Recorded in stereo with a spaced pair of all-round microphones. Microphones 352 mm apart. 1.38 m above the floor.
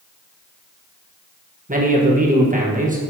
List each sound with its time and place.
1.7 s a man speaking: 25° right (ahead or behind), 1.3 m